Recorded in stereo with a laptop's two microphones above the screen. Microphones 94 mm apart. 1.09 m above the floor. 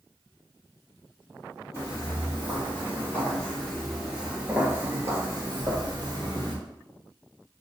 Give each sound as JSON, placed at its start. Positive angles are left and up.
{"t": 1.7, "sound": "footsteps", "side_deg": 35, "distance_m": 1.8}